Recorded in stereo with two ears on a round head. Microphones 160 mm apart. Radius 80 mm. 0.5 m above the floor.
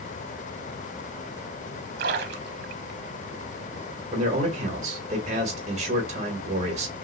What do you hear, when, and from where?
2.0 s a splash: 65° right (ahead or behind), 0.7 m
4.1 s a man speaking: 40° right (ahead or behind), 1.4 m